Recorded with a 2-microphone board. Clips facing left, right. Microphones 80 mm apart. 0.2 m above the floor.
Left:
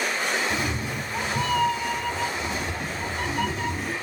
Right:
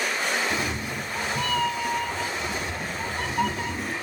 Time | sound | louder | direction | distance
0.5 | a cat meowing | left 1 dB | centre (ahead or behind) | 0.6 m